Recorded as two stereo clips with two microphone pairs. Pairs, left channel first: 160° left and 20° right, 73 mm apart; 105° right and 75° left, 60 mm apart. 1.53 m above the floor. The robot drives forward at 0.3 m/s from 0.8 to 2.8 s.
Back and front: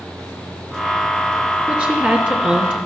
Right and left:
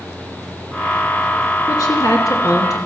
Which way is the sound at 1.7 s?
90° right.